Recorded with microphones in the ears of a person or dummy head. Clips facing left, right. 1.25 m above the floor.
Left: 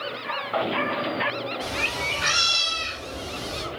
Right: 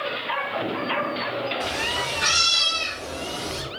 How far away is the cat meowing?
About 0.6 m.